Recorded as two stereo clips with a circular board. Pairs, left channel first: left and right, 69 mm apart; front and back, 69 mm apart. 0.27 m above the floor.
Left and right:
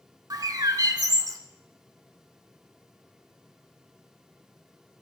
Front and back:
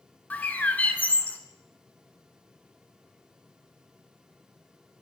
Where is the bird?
65° right, 1.0 m.